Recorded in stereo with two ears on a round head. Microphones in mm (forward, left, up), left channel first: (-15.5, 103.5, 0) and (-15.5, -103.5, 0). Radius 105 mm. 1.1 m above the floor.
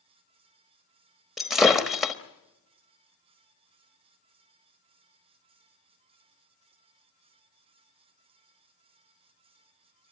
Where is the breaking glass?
Centre (ahead or behind), 1.0 m.